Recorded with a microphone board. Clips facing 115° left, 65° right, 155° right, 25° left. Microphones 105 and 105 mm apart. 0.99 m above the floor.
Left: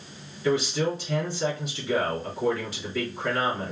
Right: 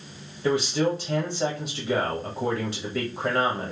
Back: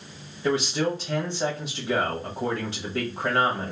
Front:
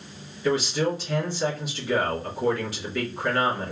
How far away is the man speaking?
About 1.4 m.